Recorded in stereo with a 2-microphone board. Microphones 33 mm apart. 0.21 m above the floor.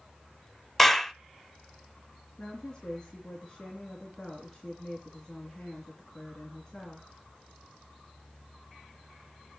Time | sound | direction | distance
0.8 | a clap | 5° left (ahead or behind) | 1.0 m
2.4 | a woman speaking | 20° left (ahead or behind) | 3 m